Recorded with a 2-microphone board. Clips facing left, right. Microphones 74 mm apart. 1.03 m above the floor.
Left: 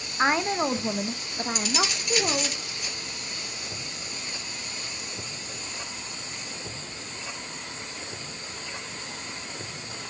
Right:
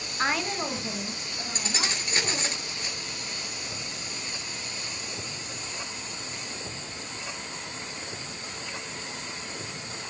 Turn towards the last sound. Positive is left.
turn(degrees=-35)  # may be behind; listen again after turning